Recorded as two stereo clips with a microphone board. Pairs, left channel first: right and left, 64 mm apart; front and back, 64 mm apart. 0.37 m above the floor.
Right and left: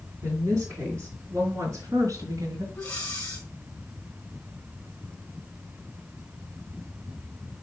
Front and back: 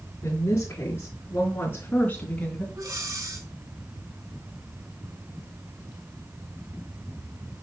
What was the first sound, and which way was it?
A woman speaking, 50° left.